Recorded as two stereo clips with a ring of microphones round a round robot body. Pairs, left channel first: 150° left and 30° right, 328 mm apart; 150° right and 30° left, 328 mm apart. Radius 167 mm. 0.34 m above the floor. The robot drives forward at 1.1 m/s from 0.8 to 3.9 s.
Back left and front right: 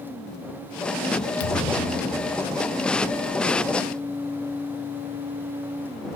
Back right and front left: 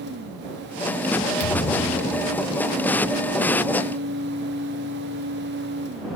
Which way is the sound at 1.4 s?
175° left.